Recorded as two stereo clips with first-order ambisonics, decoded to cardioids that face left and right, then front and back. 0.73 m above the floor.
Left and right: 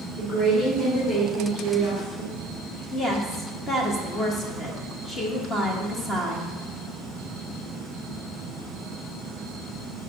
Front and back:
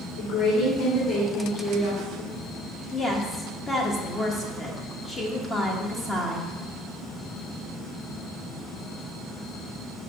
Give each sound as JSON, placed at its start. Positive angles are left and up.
{"t": 0.2, "sound": "a woman speaking", "azimuth_deg": 15, "distance_m": 2.5}
{"t": 2.9, "sound": "a woman speaking", "azimuth_deg": 40, "distance_m": 1.0}